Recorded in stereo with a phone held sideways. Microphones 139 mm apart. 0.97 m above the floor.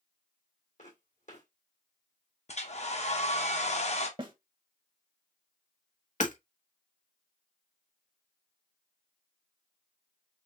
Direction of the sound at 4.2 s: 35° right (ahead or behind).